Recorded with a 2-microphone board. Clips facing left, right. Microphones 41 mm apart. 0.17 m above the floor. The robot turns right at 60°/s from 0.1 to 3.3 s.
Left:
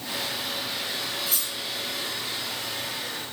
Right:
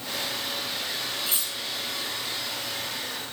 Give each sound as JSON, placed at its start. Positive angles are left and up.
{"t": 1.3, "sound": "cutlery clinking", "side_deg": -20, "distance_m": 2.0}